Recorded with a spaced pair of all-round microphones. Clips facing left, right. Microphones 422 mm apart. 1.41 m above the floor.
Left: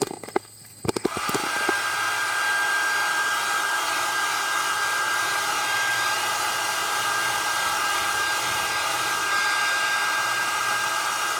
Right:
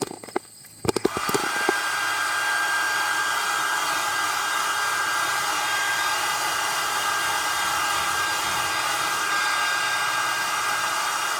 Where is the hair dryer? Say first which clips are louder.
Right 2 dB; 60° right (ahead or behind), 2.5 m.